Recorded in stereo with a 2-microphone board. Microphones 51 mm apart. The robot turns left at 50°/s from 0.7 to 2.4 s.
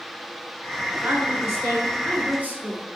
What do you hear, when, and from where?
0.9 s a woman speaking: 55° right, 1.9 m; by 2.9 s 130° right, 1.9 m